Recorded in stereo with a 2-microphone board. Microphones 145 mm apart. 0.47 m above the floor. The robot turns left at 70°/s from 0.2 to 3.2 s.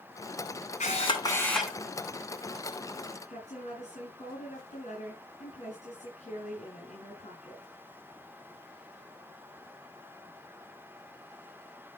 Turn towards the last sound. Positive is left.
turn(degrees=50)  # may be behind; listen again after turning